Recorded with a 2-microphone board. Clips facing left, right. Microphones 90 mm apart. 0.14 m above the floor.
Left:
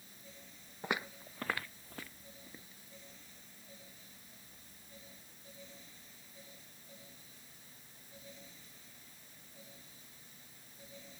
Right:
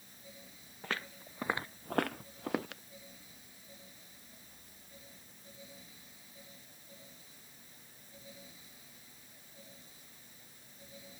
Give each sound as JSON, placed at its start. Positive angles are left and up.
{"t": 0.8, "sound": "footsteps", "side_deg": 15}